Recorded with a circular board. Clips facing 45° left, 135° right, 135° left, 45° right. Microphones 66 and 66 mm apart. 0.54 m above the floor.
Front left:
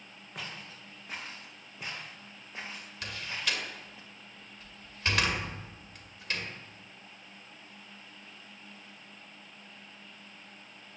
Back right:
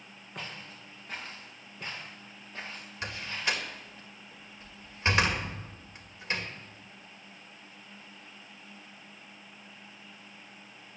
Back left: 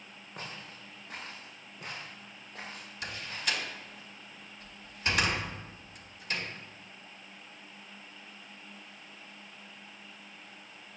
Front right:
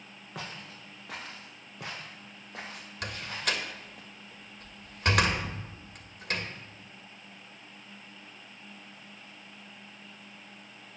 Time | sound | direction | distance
0.3 | footsteps | 40° right | 5 m
3.0 | a door slam | 70° right | 1.8 m